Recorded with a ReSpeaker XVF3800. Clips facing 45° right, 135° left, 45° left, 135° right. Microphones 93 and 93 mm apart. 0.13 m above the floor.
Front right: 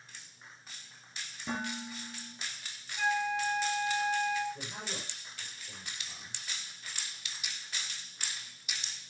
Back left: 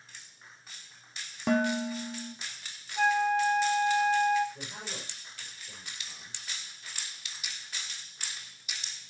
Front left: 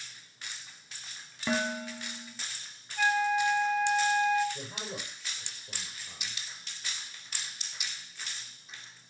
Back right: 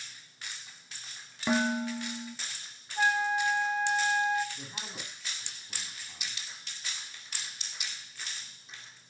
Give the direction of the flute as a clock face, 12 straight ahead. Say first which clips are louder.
Back left 6 dB, front left 1 dB; 6 o'clock.